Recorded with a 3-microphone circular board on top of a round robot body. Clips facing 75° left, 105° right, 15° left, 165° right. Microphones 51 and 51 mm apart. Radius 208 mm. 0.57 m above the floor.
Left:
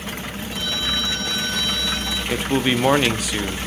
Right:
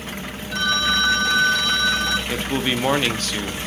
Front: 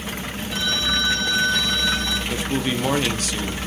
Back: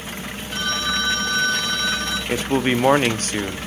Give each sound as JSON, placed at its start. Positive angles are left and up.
{"t": 0.5, "sound": "a phone ringing", "azimuth_deg": -105, "distance_m": 5.5}
{"t": 2.3, "sound": "a man speaking", "azimuth_deg": 150, "distance_m": 1.1}